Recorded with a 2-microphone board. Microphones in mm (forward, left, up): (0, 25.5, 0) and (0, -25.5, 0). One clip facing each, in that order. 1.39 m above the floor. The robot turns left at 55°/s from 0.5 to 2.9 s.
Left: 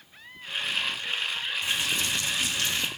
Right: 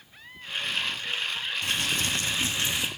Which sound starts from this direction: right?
Crumpling, at 1.6 s.